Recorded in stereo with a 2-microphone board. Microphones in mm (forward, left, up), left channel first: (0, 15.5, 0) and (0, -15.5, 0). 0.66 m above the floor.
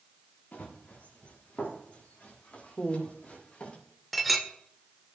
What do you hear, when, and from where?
0.5 s running footsteps: 60° left (ahead or behind), 4 m; by 3.8 s 40° left (ahead or behind), 5.5 m
2.8 s a woman speaking: 20° left (ahead or behind), 1.8 m
4.1 s a clink: centre (ahead or behind), 1.1 m